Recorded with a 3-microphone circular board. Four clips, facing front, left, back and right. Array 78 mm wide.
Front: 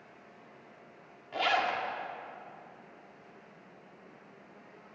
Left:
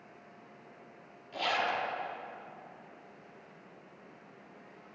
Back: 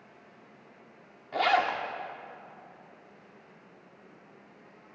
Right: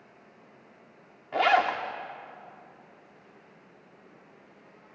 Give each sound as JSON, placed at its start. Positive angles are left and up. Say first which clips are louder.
{"t": 1.3, "sound": "a zipper", "louder": "right 9 dB, back 4 dB", "azimuth_deg": -110, "distance_m": 2.0}